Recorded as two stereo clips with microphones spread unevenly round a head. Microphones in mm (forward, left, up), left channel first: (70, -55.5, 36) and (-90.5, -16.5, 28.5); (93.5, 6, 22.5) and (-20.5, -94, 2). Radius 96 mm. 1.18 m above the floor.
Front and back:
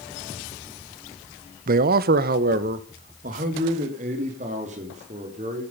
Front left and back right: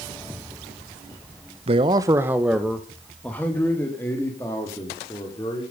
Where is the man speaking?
175° left, 0.7 m; by 5.6 s 115° left, 3.5 m.